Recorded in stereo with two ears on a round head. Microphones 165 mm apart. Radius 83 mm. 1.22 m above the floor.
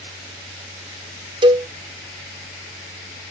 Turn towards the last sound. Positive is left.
turn(degrees=-25)  # may be behind; listen again after turning